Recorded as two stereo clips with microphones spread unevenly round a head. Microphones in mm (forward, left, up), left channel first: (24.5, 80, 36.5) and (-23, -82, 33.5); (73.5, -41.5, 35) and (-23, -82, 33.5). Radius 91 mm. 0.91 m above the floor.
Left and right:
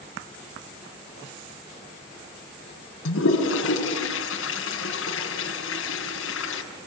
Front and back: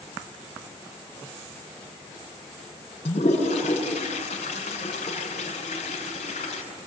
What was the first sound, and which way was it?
A toilet flushing, 75° left.